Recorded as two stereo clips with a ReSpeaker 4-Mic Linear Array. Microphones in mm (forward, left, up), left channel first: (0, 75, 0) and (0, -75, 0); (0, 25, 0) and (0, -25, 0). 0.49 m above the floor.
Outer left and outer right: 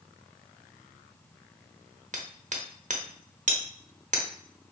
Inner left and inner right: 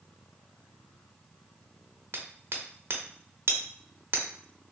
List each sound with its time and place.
2.1 s hammering: 55° right (ahead or behind), 0.7 m